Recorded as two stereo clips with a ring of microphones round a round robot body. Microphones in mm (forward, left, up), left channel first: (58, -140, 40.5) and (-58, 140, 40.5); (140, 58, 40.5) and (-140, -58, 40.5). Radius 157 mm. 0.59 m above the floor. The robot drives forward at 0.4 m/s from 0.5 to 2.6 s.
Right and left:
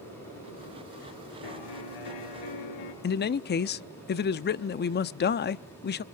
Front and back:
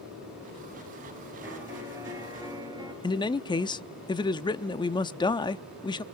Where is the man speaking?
45° right, 0.6 m.